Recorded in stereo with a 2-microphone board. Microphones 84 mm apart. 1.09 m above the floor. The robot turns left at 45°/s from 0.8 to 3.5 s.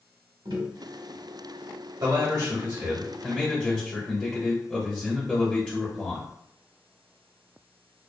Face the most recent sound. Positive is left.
turn(degrees=165)